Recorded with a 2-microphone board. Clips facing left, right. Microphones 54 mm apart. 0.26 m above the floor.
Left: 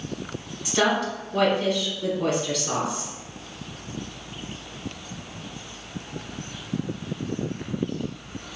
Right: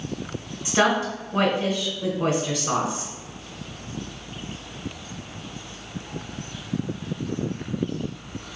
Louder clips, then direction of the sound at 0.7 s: Right 2 dB; 30° right (ahead or behind).